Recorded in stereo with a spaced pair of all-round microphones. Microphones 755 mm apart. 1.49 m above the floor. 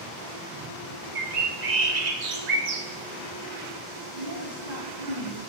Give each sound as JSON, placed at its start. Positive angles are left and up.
{"t": 1.1, "sound": "a bird", "side_deg": -60, "distance_m": 0.9}
{"t": 4.2, "sound": "a woman speaking", "side_deg": -55, "distance_m": 3.5}